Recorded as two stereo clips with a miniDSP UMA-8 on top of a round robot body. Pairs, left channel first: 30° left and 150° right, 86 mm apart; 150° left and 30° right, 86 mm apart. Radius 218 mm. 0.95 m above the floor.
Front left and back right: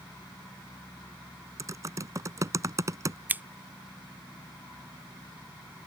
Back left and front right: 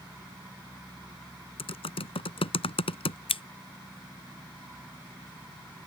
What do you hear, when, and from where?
1.6 s typing on a keyboard: 155° left
3.3 s scissors: 140° left